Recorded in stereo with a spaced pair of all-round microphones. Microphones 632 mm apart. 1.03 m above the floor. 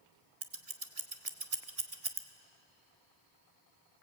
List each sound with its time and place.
0.4 s scissors: 65° right (ahead or behind), 1.3 m